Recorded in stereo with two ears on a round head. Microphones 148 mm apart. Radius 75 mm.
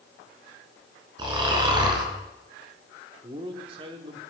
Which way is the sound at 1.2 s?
30° right (ahead or behind).